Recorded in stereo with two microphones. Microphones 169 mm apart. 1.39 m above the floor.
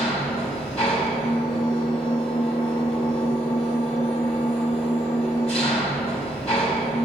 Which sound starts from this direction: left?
An engine running, at 0.0 s.